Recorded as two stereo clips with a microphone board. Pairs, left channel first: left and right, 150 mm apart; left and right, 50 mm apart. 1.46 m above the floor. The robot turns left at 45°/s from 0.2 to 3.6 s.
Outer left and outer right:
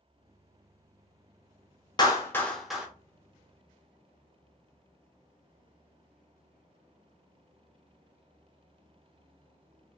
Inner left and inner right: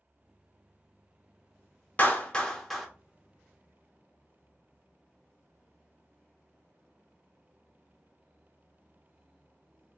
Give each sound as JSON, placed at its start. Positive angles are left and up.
{"t": 2.0, "sound": "a clap", "side_deg": 30, "distance_m": 0.8}